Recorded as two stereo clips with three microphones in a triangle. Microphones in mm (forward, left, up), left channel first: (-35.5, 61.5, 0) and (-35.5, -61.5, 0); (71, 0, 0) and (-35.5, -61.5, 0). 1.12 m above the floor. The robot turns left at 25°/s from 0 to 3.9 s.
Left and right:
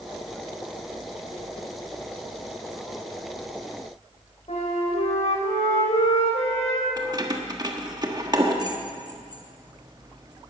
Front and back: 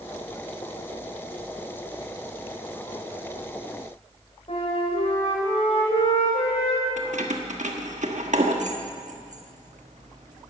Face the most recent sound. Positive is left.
turn(degrees=-145)